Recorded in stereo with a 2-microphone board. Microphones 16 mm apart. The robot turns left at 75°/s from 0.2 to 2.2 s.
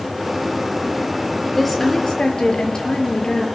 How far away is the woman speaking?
About 5 m.